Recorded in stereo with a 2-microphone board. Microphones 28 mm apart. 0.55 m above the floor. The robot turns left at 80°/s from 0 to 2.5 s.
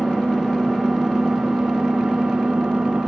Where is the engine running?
70° left, 2 m; by 3.1 s 130° right, 2 m.